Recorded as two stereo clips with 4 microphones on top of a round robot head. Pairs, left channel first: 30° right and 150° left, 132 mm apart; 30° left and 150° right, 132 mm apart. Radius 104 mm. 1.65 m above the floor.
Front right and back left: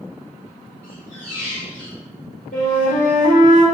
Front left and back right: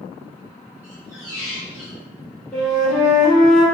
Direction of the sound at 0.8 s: 80° right.